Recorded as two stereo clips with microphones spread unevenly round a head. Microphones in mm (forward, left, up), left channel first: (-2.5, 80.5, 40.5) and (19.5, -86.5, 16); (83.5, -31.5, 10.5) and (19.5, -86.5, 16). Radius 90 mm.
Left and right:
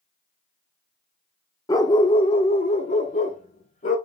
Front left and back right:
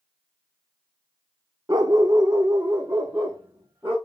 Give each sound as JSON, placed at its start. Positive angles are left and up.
{"t": 1.7, "sound": "a dog barking", "azimuth_deg": 160, "distance_m": 1.0}